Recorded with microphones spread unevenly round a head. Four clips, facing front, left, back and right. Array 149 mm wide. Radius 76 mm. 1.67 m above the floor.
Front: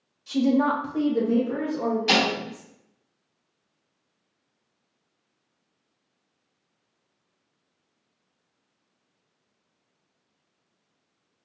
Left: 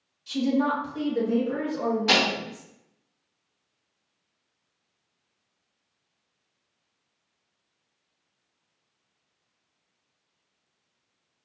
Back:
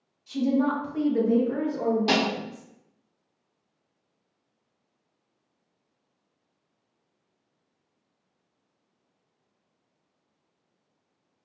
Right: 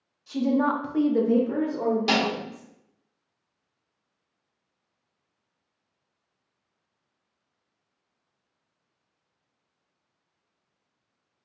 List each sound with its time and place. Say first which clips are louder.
0.3 s a woman speaking: right 1 dB, front 3 dB; 15° right, 1.5 m; by 2.7 s 140° right, 2.5 m
2.1 s a snare drum: left 1 dB, front 3 dB; 140° right, 1.7 m